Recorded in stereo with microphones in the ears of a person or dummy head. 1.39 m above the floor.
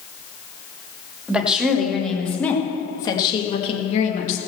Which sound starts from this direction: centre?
A woman speaking, at 1.3 s.